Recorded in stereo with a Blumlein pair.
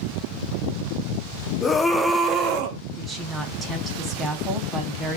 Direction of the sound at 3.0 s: 15° right.